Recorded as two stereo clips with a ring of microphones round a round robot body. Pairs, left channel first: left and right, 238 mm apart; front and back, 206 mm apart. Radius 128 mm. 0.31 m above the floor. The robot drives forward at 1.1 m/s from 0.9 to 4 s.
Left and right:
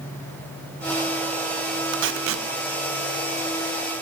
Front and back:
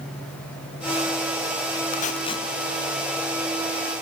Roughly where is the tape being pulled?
Ahead right.